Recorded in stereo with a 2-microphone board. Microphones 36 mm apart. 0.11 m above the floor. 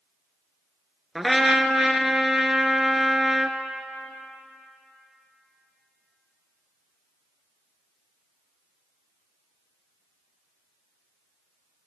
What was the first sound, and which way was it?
A trumpet, 5° right (ahead or behind).